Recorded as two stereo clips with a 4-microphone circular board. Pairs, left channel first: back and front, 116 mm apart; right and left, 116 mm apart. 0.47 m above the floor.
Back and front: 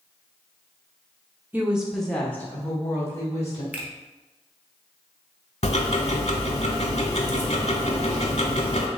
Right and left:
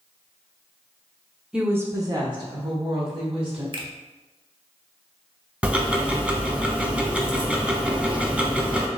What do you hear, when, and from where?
1.5 s a woman speaking: 25° left, 0.8 m; by 3.6 s 120° left, 2 m
3.7 s a finger snap: 70° left, 0.9 m
5.6 s ticking: 170° left, 0.7 m